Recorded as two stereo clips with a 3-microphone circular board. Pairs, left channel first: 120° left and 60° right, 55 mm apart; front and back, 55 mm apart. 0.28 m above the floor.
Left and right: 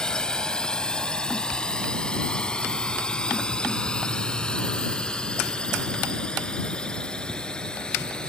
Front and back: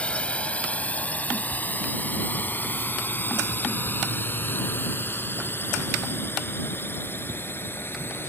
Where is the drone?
50° left; by 8.3 s 45° left.